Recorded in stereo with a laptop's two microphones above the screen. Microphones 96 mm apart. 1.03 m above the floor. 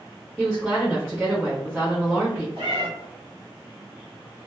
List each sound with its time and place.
0.4 s a woman speaking: centre (ahead or behind), 1.1 m
2.6 s a cat meowing: 65° right (ahead or behind), 1.0 m